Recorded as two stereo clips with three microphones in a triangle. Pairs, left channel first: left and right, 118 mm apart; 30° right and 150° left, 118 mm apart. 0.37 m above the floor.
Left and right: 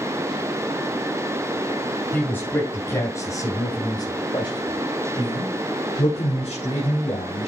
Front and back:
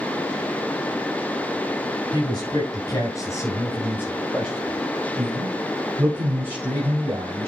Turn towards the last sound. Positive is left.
turn(degrees=95)